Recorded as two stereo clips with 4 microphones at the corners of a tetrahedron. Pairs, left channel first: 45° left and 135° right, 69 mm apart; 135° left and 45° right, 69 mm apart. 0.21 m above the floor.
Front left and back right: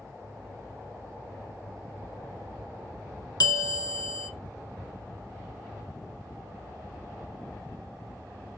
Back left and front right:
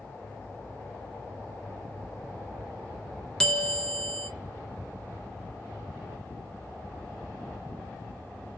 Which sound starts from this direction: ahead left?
A bell, at 3.4 s.